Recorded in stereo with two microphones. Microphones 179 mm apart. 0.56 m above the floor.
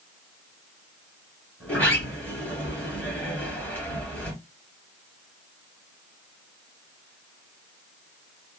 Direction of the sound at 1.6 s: 10° left (ahead or behind).